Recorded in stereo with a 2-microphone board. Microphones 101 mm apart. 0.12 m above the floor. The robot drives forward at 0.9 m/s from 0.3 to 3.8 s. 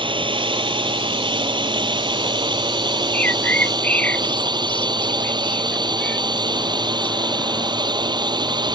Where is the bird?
15° left (ahead or behind).